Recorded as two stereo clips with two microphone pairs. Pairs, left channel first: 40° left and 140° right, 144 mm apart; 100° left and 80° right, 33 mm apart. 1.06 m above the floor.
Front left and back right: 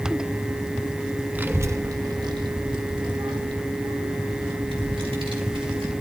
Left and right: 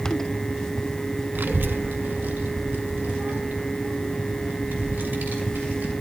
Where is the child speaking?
65° right, 0.6 m; by 5.9 s 90° right, 3.5 m.